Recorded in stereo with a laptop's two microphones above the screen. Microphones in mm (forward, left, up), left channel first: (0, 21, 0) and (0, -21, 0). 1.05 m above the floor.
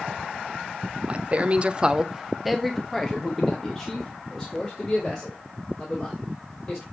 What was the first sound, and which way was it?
A man speaking, 35° right (ahead or behind).